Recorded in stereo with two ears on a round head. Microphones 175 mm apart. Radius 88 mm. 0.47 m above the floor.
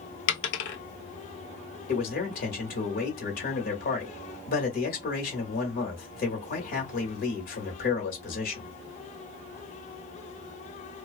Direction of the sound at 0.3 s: 60° left (ahead or behind).